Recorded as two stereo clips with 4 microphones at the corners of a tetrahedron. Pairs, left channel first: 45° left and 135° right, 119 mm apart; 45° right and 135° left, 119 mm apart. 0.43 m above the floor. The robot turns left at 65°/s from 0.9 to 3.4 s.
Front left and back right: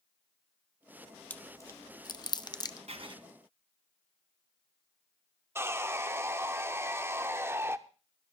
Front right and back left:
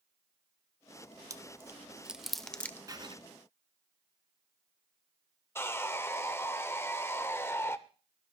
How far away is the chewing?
About 0.6 m.